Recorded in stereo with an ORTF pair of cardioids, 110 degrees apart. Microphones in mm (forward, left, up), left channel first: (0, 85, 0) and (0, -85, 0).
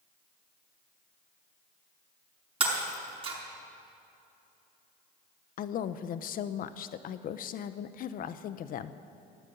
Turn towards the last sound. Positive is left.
turn(degrees=60)